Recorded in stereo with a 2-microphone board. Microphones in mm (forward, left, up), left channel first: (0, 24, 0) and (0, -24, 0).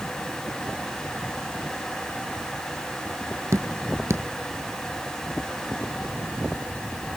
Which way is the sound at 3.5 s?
65° right (ahead or behind).